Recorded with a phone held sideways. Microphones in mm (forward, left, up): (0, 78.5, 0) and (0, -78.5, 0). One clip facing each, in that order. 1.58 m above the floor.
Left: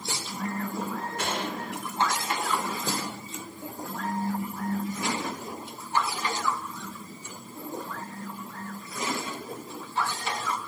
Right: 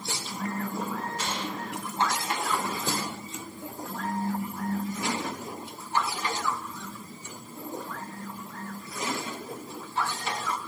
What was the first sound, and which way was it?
A gunshot, 65° left (ahead or behind).